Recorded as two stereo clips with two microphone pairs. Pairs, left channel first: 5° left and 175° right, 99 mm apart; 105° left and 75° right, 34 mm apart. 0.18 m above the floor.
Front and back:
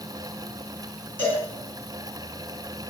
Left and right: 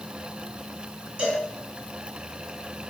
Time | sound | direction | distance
1.2 | a cowbell | 55° right | 2.5 m